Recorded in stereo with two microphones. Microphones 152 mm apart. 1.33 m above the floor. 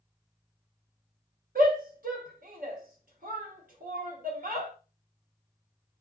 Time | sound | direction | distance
1.6 | a shout | 65° right (ahead or behind) | 1.0 m